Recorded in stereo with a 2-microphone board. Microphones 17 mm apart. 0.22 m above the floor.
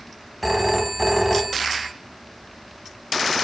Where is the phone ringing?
10° right (ahead or behind), 1.2 m.